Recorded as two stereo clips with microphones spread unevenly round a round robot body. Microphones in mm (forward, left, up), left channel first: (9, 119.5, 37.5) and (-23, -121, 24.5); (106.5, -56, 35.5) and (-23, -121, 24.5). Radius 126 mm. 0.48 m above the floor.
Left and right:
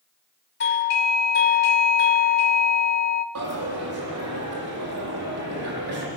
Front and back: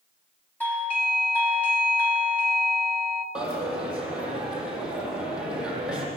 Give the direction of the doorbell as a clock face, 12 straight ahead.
8 o'clock.